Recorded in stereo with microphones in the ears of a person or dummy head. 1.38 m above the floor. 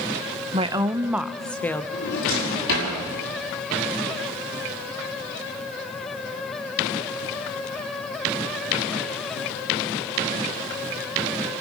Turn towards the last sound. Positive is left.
turn(degrees=75)  # may be behind; listen again after turning